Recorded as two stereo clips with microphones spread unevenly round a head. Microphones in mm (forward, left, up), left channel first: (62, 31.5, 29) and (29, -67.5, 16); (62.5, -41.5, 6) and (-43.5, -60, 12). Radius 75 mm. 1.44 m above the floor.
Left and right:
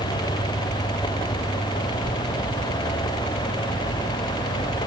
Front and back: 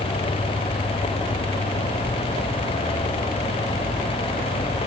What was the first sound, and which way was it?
Only background noise.